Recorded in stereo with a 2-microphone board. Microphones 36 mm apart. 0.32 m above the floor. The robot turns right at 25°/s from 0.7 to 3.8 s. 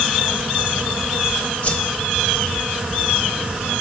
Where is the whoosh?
35° left (ahead or behind), 0.5 m.